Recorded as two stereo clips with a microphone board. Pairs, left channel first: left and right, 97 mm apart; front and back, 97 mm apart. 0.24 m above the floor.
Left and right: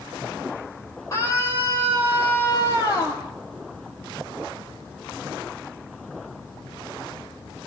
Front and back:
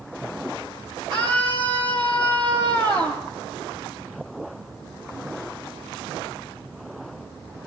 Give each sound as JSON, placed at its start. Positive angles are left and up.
{"t": 1.1, "sound": "a scream", "azimuth_deg": 150, "distance_m": 8.0}